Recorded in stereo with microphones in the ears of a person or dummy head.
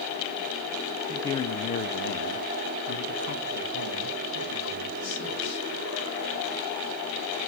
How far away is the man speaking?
About 0.6 m.